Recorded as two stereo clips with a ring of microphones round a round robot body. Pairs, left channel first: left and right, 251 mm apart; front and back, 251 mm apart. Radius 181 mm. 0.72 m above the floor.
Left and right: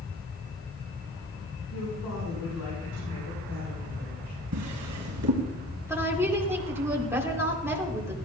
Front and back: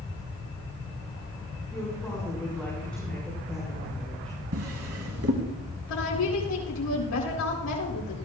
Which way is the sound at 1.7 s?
85° left.